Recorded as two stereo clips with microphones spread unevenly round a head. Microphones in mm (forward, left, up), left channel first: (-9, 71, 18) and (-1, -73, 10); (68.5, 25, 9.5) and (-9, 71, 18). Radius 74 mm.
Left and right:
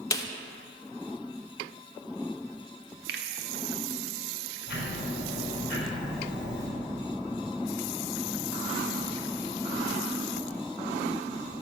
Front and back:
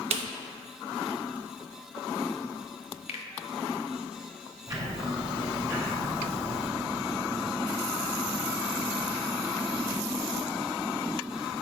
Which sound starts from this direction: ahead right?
A finger snap, at 3.1 s.